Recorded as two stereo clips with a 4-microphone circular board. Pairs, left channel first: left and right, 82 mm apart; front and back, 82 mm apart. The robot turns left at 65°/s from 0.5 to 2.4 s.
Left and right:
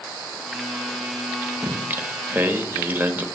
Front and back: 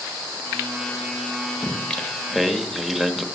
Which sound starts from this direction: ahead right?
Singing, at 1.6 s.